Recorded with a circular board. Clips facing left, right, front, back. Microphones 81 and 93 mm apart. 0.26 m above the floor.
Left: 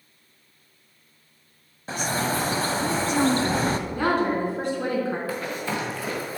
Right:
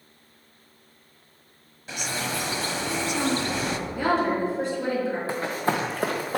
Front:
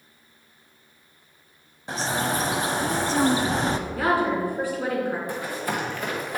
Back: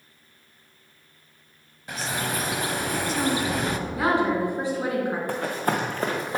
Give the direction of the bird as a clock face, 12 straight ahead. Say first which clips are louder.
Left 5 dB, front 4 dB; 10 o'clock.